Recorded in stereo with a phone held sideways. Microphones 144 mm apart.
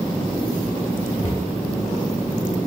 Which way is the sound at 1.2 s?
45° left (ahead or behind).